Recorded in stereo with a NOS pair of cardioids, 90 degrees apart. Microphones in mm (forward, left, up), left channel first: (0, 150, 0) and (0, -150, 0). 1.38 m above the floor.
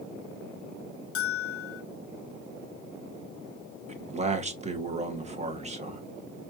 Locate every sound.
1.1 s a bell: 50° left, 0.7 m
3.9 s a man speaking: 20° right, 1.1 m